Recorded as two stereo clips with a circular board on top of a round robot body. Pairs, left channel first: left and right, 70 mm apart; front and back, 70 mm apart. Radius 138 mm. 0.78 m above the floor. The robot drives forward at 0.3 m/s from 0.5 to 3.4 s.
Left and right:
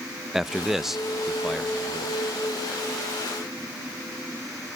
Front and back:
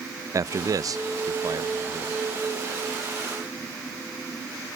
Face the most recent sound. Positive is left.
turn(degrees=180)